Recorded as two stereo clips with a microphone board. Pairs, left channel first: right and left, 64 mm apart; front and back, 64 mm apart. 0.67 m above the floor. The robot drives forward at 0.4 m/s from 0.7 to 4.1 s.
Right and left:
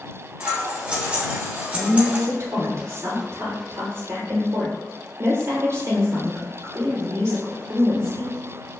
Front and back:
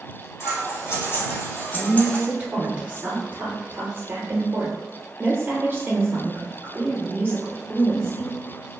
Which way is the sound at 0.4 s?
20° left.